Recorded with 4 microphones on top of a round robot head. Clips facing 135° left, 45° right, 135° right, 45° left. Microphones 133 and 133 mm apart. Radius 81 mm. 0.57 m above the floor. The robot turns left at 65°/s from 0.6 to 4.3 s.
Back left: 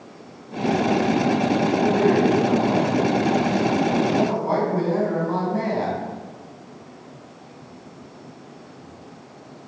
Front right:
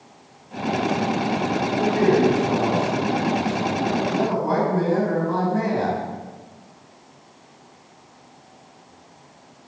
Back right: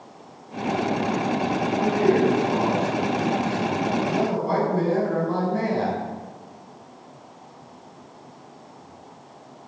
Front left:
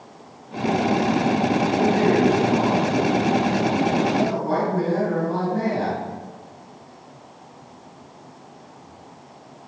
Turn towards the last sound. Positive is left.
turn(degrees=-170)